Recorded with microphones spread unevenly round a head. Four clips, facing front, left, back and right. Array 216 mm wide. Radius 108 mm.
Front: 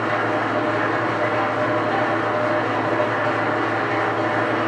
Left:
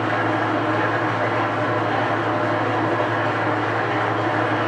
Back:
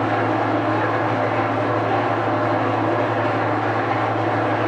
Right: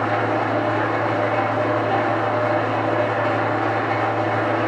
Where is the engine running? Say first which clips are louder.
Right 1 dB, back 2 dB; 130° right, 1.7 m.